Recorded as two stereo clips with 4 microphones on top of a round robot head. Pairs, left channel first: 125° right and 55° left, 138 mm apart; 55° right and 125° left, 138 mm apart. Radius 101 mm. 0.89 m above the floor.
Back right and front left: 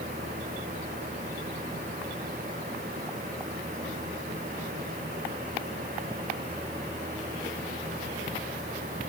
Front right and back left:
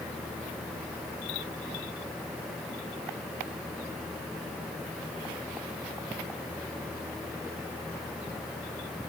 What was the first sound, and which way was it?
Only background noise.